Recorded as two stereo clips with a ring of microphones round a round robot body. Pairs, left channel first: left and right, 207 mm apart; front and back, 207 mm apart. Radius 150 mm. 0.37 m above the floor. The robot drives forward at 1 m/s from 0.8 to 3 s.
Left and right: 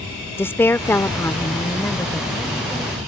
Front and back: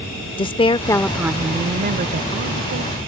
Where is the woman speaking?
25° left; by 3.0 s 175° left.